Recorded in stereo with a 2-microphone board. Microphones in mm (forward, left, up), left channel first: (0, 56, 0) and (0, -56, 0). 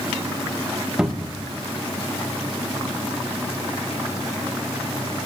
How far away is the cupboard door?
About 1.1 m.